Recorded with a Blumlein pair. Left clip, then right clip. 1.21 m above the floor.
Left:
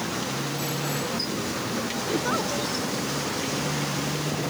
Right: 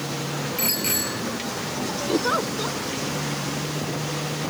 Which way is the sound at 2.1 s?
15° right.